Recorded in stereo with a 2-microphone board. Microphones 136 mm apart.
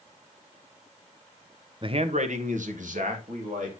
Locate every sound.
1.8 s a man speaking: 35° right (ahead or behind), 0.6 m; by 3.7 s 70° right (ahead or behind), 3 m